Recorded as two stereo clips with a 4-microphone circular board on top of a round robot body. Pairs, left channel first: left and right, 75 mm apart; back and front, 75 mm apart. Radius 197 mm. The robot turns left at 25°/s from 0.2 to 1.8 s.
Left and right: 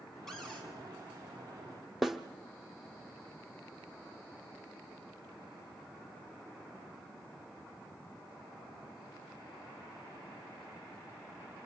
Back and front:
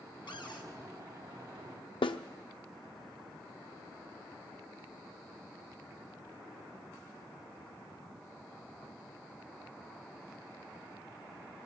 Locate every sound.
0.3 s a cupboard door: 175° left, 3.5 m; by 0.7 s 165° left, 3.5 m
2.0 s a snare drum: straight behind, 0.7 m